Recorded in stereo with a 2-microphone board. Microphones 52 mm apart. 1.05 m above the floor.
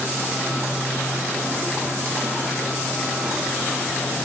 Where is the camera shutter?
No camera shutter in this recording.